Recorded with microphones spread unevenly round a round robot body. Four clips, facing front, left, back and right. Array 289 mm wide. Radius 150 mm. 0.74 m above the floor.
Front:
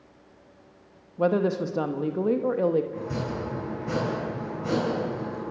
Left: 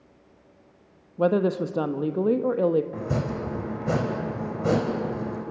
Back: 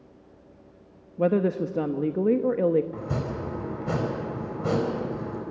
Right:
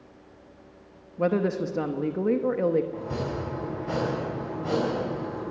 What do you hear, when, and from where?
1.2 s a woman speaking: 175° left, 1.0 m
2.9 s chopping: 125° left, 4 m